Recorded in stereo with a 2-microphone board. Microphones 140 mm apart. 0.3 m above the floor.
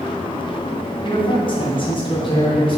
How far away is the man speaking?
About 2 m.